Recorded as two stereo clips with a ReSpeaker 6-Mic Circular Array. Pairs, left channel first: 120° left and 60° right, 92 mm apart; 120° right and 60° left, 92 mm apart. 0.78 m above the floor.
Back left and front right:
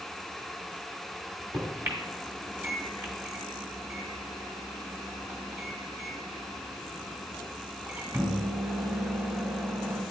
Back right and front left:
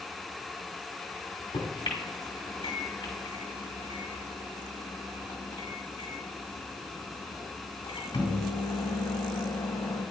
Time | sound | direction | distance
1.5 | a microwave | 115° right | 2 m